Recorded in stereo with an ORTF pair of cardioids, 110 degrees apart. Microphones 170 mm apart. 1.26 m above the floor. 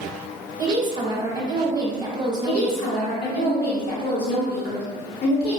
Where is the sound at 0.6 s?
25° right, 0.9 m.